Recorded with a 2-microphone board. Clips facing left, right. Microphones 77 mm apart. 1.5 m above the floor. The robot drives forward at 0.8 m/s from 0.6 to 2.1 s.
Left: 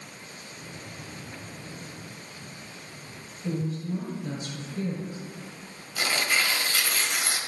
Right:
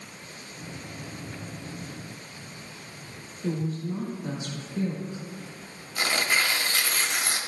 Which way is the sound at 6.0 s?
35° right (ahead or behind).